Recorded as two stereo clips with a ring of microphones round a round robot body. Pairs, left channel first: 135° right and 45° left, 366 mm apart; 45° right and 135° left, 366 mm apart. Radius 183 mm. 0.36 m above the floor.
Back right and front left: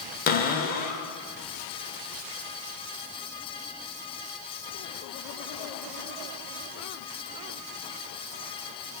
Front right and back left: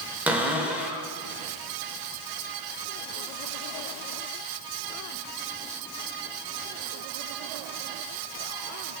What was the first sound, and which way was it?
A cupboard door, 145° right.